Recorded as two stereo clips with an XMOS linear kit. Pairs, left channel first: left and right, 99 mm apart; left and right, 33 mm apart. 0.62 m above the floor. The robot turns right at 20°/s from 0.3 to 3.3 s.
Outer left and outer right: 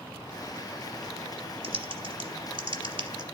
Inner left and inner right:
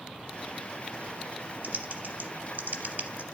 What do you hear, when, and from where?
1.6 s typing on a keyboard: 60° right (ahead or behind), 0.7 m; by 3.2 s 50° right (ahead or behind), 0.7 m